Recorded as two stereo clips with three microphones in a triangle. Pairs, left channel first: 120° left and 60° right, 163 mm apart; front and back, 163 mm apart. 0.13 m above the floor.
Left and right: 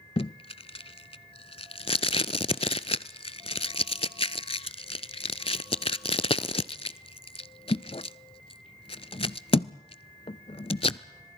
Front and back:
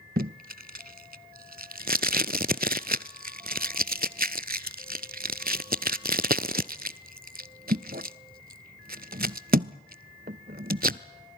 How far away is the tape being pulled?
About 0.6 m.